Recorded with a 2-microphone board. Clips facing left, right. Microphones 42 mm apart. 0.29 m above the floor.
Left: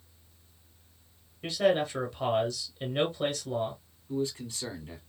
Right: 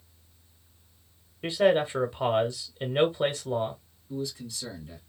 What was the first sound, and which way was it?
A man speaking, 20° right (ahead or behind).